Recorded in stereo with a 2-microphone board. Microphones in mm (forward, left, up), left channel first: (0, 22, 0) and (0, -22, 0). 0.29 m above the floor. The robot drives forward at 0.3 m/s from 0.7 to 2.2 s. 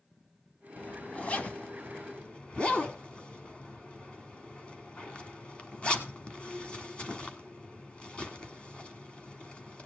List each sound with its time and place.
0.8 s a zipper: 30° left (ahead or behind), 1.0 m; by 9.9 s 25° left (ahead or behind), 1.3 m